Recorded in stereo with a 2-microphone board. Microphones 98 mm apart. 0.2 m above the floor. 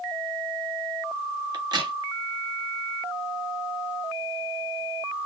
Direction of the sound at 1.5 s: 45° right (ahead or behind).